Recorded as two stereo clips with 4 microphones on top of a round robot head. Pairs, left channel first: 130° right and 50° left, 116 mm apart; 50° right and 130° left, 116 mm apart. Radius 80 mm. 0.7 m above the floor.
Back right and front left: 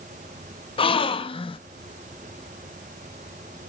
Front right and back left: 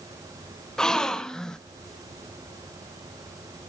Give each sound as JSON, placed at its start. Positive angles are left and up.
{"t": 0.8, "sound": "a gasp", "azimuth_deg": -135, "distance_m": 0.6}